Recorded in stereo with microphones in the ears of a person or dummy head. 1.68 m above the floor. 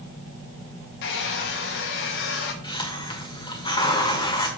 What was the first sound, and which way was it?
A hair dryer, 65° left (ahead or behind).